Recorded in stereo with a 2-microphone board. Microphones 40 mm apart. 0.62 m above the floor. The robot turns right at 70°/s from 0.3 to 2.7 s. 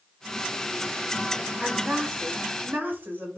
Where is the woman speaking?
175° right, 1.8 m; by 3.4 s 100° right, 1.8 m.